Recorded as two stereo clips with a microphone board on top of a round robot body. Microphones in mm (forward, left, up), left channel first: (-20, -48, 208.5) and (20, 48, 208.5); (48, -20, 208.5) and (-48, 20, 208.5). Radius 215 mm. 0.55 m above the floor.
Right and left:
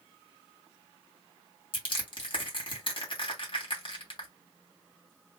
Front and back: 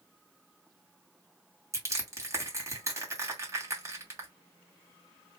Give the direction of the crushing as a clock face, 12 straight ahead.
5 o'clock.